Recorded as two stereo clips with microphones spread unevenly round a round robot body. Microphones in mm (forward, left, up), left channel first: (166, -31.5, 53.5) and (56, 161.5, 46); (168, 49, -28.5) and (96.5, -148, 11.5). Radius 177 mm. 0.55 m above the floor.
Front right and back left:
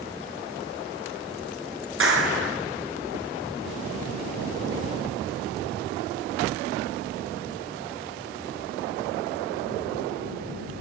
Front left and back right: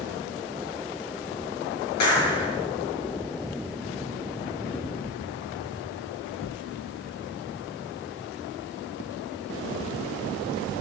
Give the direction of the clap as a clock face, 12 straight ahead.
9 o'clock.